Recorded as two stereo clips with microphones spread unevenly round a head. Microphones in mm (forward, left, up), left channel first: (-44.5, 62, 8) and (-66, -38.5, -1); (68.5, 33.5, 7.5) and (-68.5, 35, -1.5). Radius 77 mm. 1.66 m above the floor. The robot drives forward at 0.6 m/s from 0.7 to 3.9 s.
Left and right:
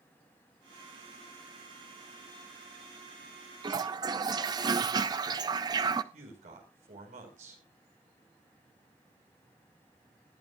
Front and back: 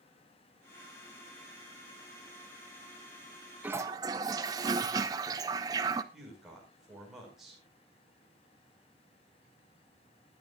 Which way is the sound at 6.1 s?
90° right.